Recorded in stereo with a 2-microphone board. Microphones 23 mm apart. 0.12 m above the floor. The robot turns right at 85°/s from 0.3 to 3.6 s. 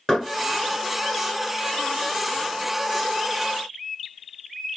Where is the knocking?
10° left (ahead or behind), 1.4 m.